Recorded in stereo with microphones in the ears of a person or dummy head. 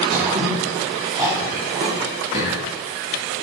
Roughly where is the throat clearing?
Right.